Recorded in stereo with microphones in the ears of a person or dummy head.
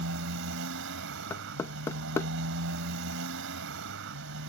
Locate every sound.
0.0 s a motorcycle: 70° right (ahead or behind)
1.3 s knocking: 15° left (ahead or behind)